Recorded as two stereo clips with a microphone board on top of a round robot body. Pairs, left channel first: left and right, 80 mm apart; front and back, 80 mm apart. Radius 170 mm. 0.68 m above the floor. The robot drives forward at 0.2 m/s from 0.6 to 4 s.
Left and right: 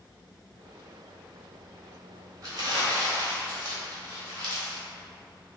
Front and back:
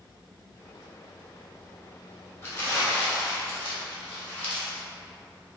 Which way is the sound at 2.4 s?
60° right.